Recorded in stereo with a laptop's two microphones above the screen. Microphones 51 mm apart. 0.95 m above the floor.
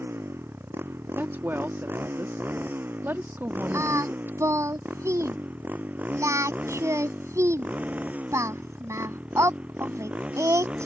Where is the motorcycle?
50° right (ahead or behind); by 10.9 s 25° right (ahead or behind).